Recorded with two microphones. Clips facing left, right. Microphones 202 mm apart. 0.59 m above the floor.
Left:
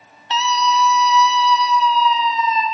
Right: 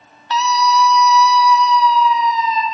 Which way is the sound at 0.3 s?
20° left (ahead or behind).